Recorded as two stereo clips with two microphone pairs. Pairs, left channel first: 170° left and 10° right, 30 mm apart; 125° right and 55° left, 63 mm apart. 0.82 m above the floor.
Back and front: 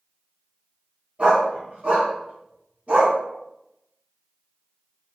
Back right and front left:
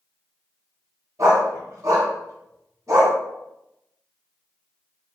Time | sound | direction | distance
1.2 | a dog barking | 20° left | 1.7 m